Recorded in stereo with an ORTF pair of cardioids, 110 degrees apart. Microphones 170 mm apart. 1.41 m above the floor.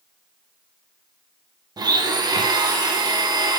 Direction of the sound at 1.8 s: 25° right.